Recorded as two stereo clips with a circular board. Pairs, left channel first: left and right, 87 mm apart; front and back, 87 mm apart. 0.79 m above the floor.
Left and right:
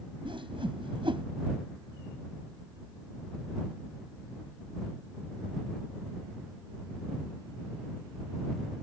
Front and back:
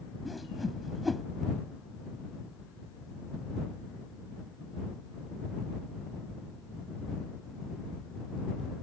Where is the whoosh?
90° right.